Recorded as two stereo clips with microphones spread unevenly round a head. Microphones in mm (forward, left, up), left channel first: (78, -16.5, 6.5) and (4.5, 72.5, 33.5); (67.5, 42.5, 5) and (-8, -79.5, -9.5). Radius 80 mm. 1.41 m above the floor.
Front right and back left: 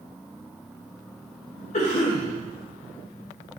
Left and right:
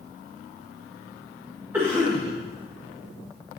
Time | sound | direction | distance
1.7 | a cough | 45° right | 1.7 m